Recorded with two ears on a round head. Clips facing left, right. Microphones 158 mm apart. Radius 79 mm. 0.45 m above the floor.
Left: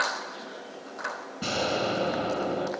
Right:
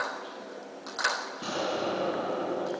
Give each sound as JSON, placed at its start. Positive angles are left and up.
{"t": 1.4, "sound": "an explosion", "side_deg": 25, "distance_m": 5.5}